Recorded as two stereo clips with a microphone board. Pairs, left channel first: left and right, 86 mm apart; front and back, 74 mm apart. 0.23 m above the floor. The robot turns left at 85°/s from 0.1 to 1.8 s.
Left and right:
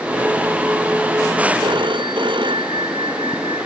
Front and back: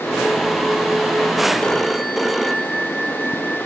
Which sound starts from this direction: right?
A phone ringing, at 1.6 s.